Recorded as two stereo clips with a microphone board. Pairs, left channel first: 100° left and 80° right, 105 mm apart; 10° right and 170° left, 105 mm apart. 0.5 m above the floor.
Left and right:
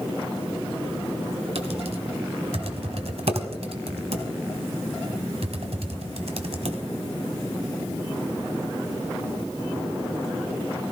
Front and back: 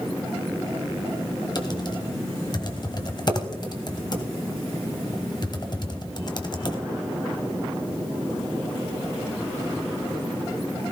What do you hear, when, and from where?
1.6 s typing on a keyboard: 60° right, 1.3 m